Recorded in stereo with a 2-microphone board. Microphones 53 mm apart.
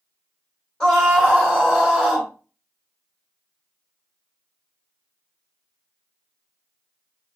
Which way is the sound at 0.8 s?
10° left (ahead or behind).